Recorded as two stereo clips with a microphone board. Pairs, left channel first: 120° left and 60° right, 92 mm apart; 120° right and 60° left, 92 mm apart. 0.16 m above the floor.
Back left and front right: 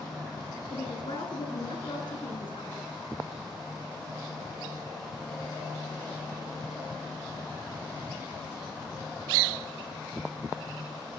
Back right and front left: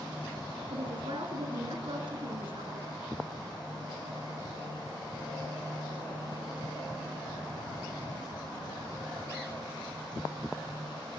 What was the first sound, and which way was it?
A woman speaking, 90° left.